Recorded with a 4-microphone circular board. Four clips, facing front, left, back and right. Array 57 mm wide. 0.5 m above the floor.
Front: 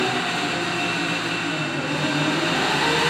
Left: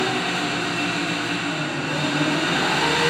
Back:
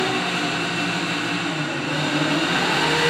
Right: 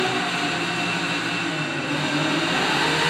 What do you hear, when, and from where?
0.0 s an engine running: 155° left, 2 m